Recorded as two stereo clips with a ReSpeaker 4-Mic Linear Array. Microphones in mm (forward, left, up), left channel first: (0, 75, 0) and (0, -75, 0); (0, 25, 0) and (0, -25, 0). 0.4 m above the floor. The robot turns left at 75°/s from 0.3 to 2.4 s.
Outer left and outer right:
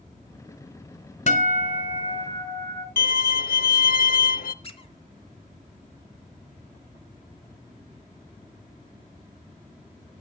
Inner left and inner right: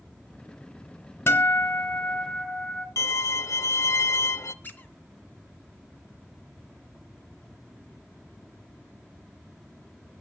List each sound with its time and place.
1.3 s a guitar: 135° left, 1.4 m; by 2.9 s 45° left, 1.4 m
3.0 s a violin: 80° left, 0.5 m
4.6 s a squeak: 35° left (ahead or behind), 1.0 m